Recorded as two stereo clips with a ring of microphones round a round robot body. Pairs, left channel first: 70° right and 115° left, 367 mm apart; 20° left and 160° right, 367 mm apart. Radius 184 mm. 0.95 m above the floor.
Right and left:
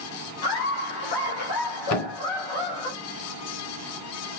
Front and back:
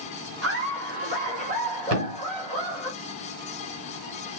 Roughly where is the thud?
Right.